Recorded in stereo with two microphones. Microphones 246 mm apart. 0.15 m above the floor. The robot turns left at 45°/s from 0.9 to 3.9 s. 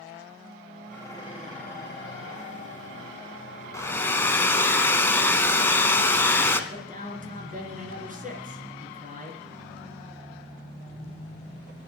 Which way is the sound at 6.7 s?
35° right (ahead or behind).